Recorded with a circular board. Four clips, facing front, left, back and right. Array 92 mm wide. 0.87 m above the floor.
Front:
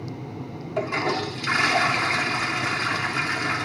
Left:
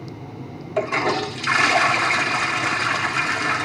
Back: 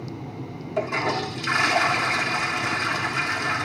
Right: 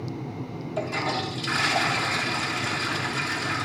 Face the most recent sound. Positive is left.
turn(degrees=85)